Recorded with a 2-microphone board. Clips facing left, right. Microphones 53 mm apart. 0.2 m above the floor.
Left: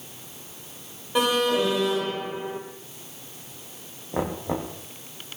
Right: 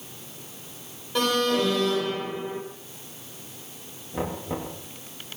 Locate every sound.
1.1 s an alarm: 20° left (ahead or behind), 4.5 m
4.1 s knocking: 80° left, 9 m